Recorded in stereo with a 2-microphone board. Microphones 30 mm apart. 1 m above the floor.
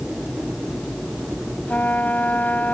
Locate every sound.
1.7 s a trumpet: 80° left